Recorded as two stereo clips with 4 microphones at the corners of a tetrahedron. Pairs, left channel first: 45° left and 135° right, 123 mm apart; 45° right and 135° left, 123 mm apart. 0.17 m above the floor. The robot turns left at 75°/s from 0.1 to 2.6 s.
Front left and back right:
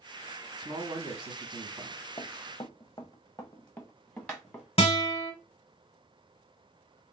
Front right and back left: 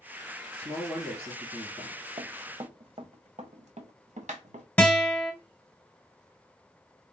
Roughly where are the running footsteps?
Left.